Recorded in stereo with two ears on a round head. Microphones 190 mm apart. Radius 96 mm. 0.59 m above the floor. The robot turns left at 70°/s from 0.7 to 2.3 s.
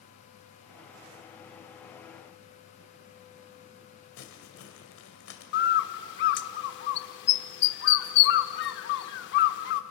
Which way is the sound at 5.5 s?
60° left (ahead or behind).